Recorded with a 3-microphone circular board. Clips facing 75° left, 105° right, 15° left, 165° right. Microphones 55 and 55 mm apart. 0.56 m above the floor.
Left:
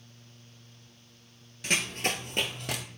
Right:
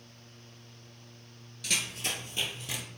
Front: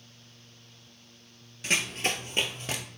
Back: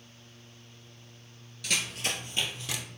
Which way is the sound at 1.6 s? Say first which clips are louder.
Left 5 dB, front 4 dB; 50° left.